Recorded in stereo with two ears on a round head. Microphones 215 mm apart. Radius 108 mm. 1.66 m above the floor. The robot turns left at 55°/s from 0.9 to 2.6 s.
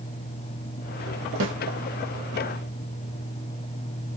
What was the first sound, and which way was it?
A snare drum, 55° right (ahead or behind).